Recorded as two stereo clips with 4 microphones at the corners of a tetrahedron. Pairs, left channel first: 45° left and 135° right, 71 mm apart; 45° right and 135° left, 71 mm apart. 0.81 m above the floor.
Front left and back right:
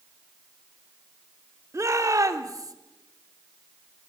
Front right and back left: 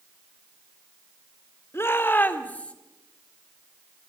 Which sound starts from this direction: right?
A shout, at 1.7 s.